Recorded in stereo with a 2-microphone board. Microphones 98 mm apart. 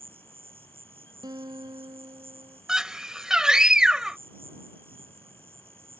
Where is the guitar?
45° right (ahead or behind).